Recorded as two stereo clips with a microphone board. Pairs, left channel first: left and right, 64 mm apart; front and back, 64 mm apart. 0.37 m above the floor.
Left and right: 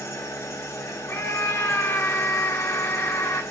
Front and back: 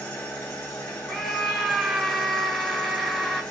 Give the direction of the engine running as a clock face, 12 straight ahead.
10 o'clock.